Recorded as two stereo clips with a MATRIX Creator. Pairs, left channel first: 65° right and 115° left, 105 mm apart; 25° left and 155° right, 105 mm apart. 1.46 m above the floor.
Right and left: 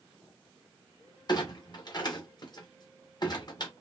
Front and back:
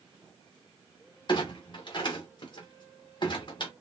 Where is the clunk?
20° right, 1.0 m.